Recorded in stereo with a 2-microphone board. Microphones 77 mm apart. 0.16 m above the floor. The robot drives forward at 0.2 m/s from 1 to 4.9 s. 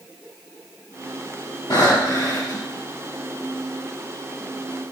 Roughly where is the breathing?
Left.